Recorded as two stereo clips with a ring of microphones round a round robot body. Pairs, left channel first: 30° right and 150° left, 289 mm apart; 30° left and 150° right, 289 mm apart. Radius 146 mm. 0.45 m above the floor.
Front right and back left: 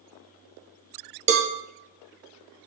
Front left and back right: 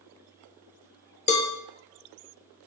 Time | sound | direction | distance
1.3 | a cowbell | 90° left | 0.7 m